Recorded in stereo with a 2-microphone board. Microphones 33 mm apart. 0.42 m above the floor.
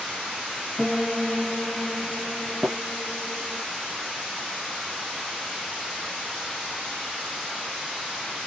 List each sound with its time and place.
0.8 s a piano: 5° left (ahead or behind), 1.4 m
2.6 s tapping: 35° right (ahead or behind), 0.7 m